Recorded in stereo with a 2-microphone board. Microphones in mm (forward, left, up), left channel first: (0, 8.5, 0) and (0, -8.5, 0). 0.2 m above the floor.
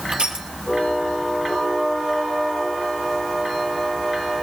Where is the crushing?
75° right (ahead or behind), 3 m.